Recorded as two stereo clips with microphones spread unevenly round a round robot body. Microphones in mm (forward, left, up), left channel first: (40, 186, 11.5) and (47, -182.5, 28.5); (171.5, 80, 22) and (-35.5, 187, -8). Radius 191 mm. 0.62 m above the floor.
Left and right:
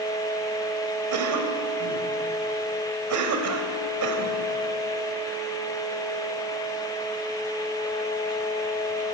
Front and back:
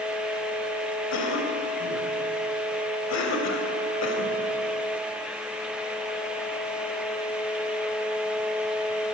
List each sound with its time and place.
1.1 s a cough: 50° right, 4 m